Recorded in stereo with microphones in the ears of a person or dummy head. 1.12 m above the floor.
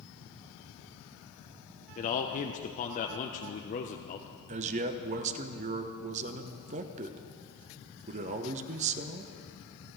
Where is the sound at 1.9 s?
40° left (ahead or behind), 0.6 m.